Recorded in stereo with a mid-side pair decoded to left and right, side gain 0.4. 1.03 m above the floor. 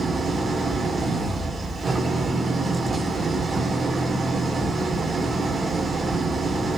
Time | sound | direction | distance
0.0 | an engine running | 35° right | 3 m